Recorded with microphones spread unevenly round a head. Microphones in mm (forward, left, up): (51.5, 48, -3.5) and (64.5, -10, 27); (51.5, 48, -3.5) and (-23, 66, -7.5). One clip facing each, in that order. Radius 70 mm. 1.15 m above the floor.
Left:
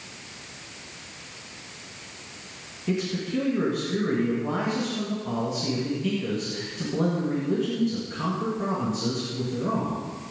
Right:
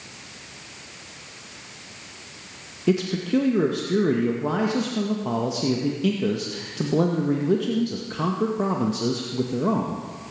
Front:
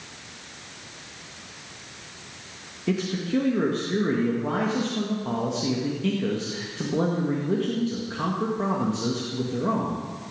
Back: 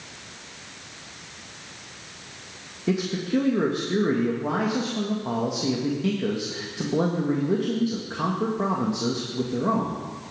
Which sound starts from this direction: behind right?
A man speaking, at 2.9 s.